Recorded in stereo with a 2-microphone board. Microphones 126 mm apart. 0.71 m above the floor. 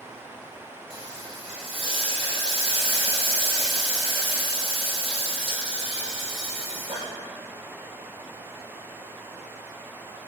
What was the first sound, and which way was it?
Frying, 45° right (ahead or behind).